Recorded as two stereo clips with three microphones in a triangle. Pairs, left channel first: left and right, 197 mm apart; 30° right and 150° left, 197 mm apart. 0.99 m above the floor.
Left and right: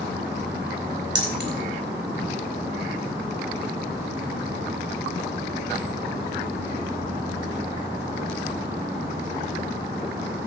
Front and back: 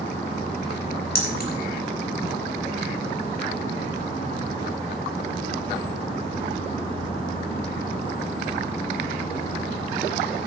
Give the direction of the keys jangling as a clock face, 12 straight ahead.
2 o'clock.